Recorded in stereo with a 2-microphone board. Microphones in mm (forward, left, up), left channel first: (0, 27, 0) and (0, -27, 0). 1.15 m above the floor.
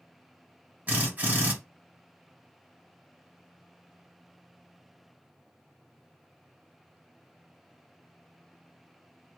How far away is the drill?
About 1.6 m.